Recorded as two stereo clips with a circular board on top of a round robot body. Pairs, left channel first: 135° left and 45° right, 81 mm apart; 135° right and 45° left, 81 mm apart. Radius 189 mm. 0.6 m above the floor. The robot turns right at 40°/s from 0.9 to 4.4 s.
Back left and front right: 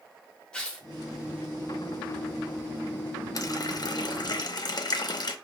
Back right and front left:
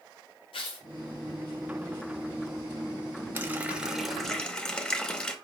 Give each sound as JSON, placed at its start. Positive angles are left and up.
{"t": 0.5, "sound": "tearing paper", "azimuth_deg": -145, "distance_m": 0.7}
{"t": 3.4, "sound": "a running tap", "azimuth_deg": 105, "distance_m": 0.7}